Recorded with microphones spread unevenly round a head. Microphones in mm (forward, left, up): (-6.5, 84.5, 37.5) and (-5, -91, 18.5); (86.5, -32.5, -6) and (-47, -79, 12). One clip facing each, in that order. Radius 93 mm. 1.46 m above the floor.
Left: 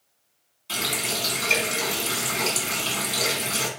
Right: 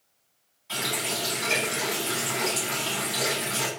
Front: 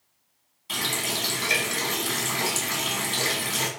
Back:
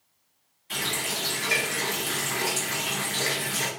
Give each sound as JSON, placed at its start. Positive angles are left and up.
{"t": 0.7, "sound": "a running tap", "azimuth_deg": 45, "distance_m": 1.2}